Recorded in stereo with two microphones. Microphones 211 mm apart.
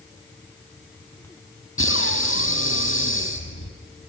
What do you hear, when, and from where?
1.8 s breathing: 85° left, 3 m